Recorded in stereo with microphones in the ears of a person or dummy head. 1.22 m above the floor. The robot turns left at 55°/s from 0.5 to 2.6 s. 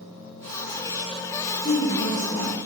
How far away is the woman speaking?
About 2.0 m.